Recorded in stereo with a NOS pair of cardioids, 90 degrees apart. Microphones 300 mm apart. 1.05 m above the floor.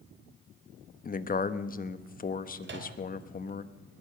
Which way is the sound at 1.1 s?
30° left.